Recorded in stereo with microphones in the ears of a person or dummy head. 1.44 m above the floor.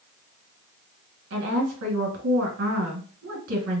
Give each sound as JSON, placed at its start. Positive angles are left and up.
{"t": 1.3, "sound": "a woman speaking", "side_deg": -60, "distance_m": 1.7}